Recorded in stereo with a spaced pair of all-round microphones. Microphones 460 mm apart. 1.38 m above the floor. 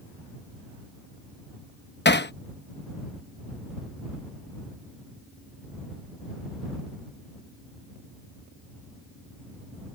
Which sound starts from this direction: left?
Hammering, at 2.0 s.